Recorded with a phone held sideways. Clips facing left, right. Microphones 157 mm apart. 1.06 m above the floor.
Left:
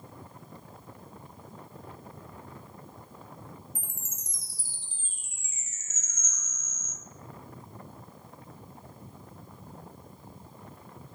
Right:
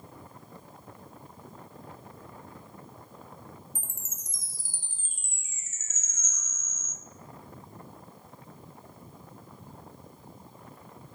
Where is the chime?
50° right (ahead or behind), 0.6 m.